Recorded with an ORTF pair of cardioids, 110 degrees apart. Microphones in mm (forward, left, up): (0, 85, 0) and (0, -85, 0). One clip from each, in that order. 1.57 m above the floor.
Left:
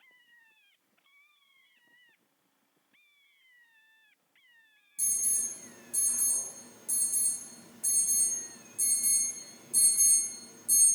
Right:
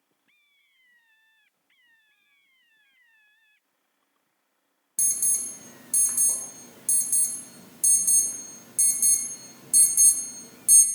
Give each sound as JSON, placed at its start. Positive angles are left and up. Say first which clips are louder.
{"t": 5.0, "sound": "an alarm", "louder": "right 5 dB", "azimuth_deg": -70, "distance_m": 1.1}